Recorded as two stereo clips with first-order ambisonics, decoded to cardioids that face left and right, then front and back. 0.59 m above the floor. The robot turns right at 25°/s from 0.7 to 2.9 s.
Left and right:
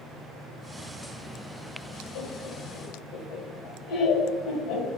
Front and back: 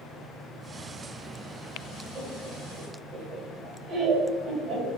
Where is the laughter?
110° left, 2.5 m; by 4.9 s 130° left, 2.5 m.